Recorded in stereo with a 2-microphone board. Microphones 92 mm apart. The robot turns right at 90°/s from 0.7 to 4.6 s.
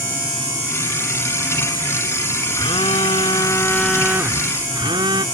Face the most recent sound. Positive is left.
turn(degrees=-120)